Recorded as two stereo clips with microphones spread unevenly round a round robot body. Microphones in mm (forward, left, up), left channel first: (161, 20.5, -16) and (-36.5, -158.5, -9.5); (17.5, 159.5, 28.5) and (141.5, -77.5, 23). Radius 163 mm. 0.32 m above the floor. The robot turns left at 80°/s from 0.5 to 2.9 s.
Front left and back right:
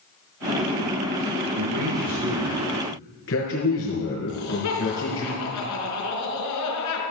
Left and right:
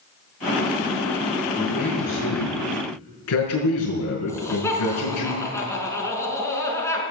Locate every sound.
1.6 s a man speaking: 160° right, 5 m; by 5.3 s 90° left, 5 m
4.3 s laughter: 40° left, 5 m